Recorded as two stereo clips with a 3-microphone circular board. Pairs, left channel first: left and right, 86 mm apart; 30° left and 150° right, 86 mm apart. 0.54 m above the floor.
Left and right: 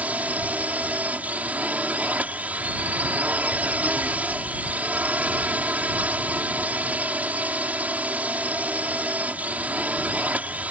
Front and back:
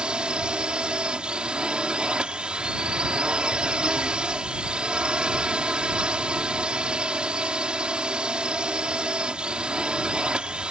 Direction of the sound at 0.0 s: 100° right.